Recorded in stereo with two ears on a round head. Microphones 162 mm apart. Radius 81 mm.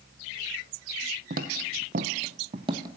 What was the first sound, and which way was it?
Footsteps, 50° right (ahead or behind).